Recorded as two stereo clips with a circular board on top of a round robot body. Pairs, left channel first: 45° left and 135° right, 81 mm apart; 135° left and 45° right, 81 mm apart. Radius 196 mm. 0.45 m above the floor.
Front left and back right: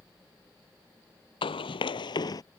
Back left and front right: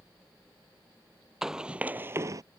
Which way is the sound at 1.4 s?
40° left.